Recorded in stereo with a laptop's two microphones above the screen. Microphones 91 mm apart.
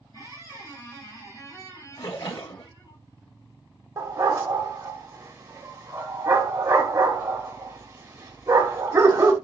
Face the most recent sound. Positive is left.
turn(degrees=-30)  # may be behind; listen again after turning